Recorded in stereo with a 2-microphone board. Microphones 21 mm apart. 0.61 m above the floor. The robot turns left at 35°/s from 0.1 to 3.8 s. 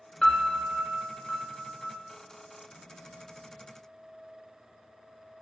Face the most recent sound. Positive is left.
turn(degrees=25)